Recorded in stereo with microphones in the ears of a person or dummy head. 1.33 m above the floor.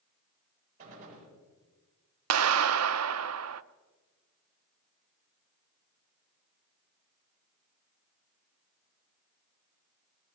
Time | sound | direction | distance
0.8 | a gunshot | 35° right (ahead or behind) | 8 m
2.3 | a clap | 70° right (ahead or behind) | 0.7 m